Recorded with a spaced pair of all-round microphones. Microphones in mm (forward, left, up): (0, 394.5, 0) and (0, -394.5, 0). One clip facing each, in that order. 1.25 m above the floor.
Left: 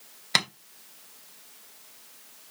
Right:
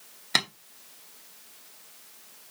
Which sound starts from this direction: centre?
Tapping, at 0.3 s.